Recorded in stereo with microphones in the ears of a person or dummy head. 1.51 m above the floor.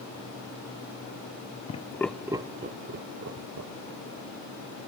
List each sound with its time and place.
1.7 s laughter: 35° left (ahead or behind), 0.6 m; by 4.9 s 75° right (ahead or behind), 2 m